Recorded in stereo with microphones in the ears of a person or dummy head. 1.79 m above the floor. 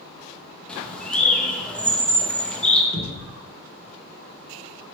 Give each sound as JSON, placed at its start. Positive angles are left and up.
{"t": 0.7, "sound": "a bird", "side_deg": 10, "distance_m": 0.5}
{"t": 2.9, "sound": "a thud", "side_deg": -20, "distance_m": 1.9}